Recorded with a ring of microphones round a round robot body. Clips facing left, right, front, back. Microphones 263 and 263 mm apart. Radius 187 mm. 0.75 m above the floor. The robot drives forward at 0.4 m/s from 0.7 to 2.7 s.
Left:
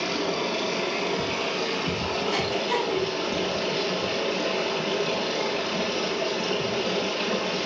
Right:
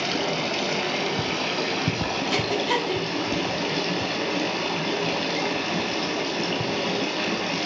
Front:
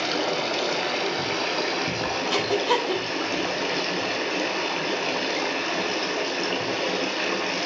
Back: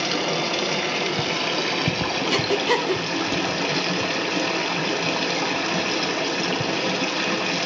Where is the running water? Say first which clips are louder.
Even, back 1 dB; 130° right, 3 m; by 7.7 s 140° right, 3.5 m.